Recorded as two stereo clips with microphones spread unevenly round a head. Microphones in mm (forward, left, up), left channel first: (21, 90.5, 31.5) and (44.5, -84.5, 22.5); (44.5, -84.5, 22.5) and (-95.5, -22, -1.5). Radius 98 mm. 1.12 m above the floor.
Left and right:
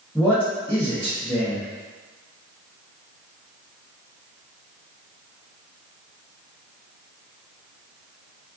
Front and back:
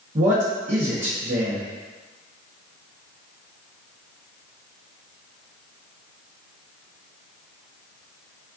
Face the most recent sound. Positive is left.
turn(degrees=180)